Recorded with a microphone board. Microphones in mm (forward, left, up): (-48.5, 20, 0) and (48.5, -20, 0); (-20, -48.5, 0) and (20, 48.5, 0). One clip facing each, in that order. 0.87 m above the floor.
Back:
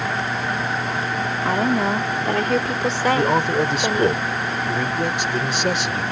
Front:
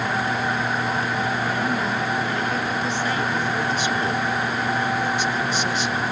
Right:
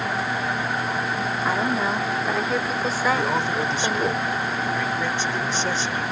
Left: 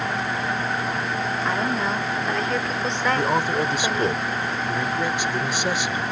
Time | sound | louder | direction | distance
1.4 | a woman speaking | back 4 dB, right 2 dB | 165° left | ?
3.1 | a man speaking | back 5 dB, left 1 dB | 145° left | ?